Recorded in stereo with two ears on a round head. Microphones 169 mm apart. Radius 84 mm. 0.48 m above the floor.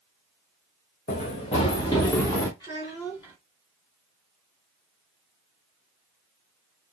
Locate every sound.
1.1 s running footsteps: 40° left (ahead or behind), 1.9 m; by 2.5 s 10° left (ahead or behind), 1.9 m
2.6 s a child speaking: 25° left (ahead or behind), 2 m